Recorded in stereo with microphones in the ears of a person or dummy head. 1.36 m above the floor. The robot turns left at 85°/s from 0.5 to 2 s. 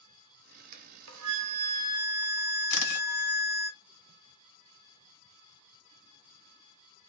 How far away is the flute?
About 0.7 m.